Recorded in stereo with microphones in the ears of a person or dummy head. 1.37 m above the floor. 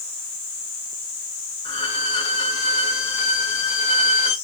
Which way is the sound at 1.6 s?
25° left (ahead or behind).